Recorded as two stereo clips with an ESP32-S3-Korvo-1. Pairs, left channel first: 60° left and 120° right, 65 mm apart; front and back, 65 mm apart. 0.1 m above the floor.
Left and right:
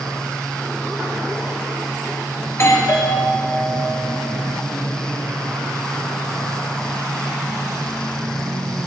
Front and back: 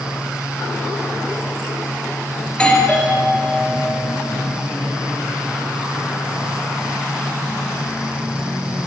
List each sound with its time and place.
2.5 s a doorbell: 65° left, 2.0 m